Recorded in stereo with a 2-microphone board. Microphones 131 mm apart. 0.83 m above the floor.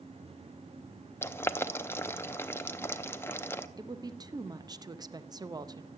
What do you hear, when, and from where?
1.2 s boiling: 20° left (ahead or behind), 0.6 m
3.8 s a woman speaking: 30° right (ahead or behind), 0.6 m